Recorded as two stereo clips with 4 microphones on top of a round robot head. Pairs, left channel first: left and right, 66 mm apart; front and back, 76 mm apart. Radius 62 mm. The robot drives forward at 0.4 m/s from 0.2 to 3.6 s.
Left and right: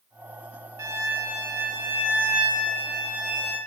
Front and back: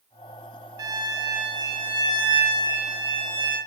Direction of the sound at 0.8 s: 135° right.